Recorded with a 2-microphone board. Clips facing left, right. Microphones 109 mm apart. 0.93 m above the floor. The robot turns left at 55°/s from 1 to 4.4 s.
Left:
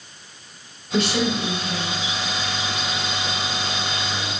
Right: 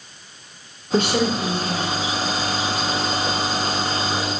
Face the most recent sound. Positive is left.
turn(degrees=105)